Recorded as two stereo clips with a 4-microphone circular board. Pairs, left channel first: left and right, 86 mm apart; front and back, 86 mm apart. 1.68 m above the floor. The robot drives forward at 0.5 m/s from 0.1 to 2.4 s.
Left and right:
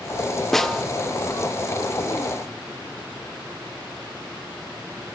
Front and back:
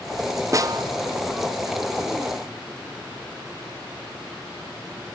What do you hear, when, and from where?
0.5 s a snare drum: 175° left, 0.6 m